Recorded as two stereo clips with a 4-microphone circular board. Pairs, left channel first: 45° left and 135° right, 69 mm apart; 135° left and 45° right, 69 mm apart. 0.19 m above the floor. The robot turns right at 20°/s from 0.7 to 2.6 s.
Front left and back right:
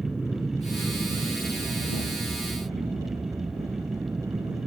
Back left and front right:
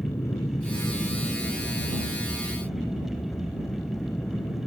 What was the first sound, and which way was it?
An aircraft, 150° left.